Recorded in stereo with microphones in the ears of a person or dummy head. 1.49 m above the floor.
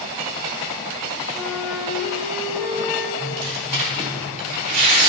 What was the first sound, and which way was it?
A flute, 10° left (ahead or behind).